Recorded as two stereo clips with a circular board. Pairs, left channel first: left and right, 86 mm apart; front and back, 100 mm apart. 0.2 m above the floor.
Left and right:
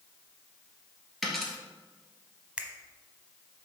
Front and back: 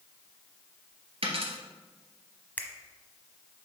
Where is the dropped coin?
Straight behind, 2.0 m.